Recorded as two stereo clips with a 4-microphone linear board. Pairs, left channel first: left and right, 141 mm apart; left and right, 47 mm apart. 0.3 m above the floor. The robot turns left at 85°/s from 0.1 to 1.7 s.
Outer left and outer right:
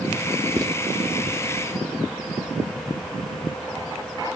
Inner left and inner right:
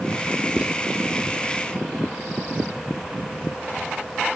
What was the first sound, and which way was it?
Writing, 20° right (ahead or behind).